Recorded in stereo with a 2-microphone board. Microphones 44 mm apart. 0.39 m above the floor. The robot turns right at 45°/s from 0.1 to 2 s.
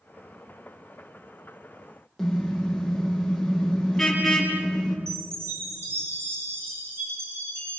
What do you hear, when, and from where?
2.2 s a car horn: 5° left (ahead or behind), 5.5 m
5.1 s a chime: 85° right, 9.5 m